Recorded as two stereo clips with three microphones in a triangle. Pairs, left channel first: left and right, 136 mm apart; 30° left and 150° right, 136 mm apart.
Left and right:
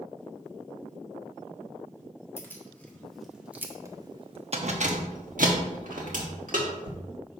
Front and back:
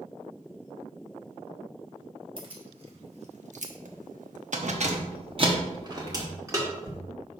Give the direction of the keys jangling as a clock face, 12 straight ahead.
7 o'clock.